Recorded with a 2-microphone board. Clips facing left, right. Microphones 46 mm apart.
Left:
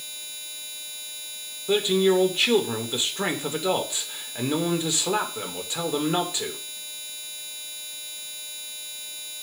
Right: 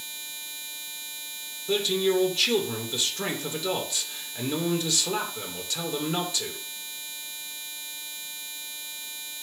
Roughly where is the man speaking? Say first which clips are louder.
Left 4 dB; left.